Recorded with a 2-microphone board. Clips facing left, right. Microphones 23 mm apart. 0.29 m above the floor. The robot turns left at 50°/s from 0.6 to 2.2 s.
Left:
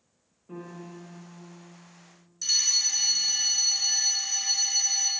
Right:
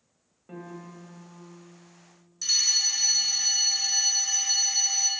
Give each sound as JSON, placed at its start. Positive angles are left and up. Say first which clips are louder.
{"t": 0.5, "sound": "a piano", "louder": "even", "azimuth_deg": -105, "distance_m": 1.3}
{"t": 2.4, "sound": "a fire alarm", "louder": "right 1 dB", "side_deg": -15, "distance_m": 1.9}